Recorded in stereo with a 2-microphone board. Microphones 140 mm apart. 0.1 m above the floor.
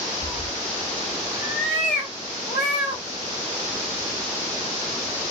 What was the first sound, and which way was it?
A cat meowing, 65° left (ahead or behind).